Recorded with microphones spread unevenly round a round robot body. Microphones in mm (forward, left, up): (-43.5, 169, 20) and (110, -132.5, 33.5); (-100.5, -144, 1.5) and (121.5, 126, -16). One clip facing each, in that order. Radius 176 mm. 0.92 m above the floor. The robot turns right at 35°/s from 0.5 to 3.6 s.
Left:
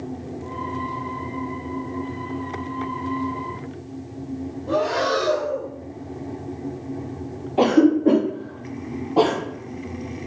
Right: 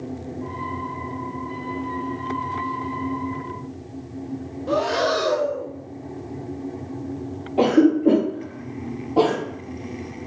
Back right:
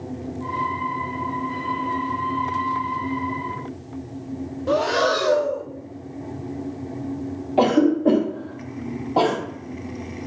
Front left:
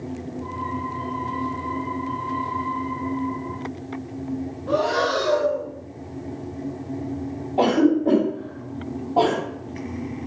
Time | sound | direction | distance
4.7 | breathing | 110° right | 0.5 m
7.6 | a cough | 160° right | 0.8 m